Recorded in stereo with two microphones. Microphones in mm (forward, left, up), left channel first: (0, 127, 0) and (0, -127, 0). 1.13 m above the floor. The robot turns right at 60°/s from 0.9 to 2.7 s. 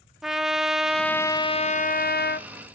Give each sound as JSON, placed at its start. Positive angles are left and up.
{"t": 0.2, "sound": "a trumpet", "azimuth_deg": -5, "distance_m": 0.6}